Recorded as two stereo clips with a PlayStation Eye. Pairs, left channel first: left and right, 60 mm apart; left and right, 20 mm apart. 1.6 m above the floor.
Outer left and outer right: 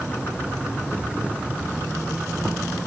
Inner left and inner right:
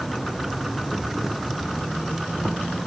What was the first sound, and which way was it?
An insect, 20° right (ahead or behind).